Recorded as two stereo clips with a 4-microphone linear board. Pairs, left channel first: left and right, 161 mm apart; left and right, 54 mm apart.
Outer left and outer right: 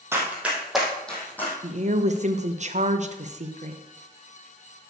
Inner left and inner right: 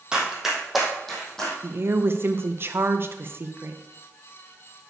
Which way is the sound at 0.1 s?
15° right (ahead or behind).